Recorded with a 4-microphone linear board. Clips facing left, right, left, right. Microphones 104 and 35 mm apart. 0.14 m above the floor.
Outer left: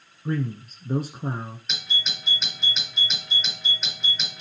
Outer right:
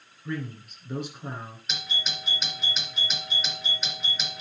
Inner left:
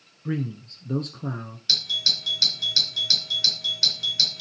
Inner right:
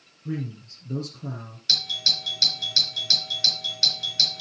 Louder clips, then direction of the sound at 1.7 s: Outer left 1 dB, even; centre (ahead or behind).